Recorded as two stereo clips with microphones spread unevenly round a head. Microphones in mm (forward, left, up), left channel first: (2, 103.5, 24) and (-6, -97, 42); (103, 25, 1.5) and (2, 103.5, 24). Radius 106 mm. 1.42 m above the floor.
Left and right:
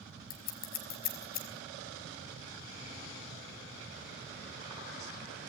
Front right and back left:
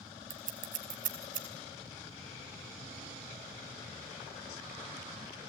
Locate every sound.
0.3 s scissors: 135° left, 5 m